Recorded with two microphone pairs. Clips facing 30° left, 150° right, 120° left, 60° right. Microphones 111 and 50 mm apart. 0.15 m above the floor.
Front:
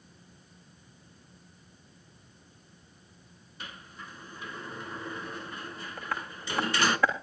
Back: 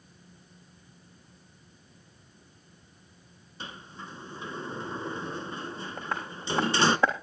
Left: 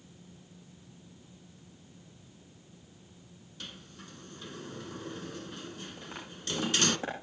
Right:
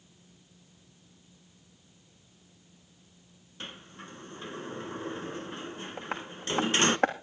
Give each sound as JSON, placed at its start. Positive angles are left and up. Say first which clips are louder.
{"t": 3.6, "sound": "a sliding door", "louder": "back 3 dB, right 4 dB", "azimuth_deg": -100, "distance_m": 0.7}
{"t": 6.0, "sound": "tapping", "louder": "even, right 7 dB", "azimuth_deg": -85, "distance_m": 3.0}